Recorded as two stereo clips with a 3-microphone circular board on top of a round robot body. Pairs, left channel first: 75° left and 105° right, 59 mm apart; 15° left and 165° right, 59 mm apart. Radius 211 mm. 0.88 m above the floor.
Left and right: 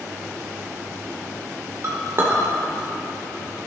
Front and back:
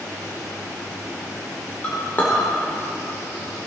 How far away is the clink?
About 2.0 m.